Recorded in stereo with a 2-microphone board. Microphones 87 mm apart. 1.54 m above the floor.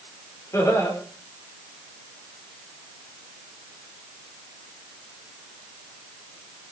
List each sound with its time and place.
0.5 s laughter: 35° left (ahead or behind), 5 m